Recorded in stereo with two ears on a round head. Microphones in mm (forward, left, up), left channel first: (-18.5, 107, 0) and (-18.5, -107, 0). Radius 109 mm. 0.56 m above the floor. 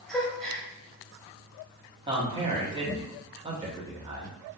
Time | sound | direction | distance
0.1 | a gasp | centre (ahead or behind) | 1.3 m
2.1 | a man speaking | 20° right (ahead or behind) | 1.0 m